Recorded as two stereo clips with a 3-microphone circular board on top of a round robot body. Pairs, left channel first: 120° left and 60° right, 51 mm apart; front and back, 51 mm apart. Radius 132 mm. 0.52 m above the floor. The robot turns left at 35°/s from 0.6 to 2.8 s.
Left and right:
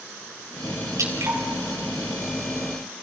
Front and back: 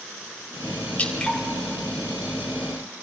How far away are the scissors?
I don't hear scissors.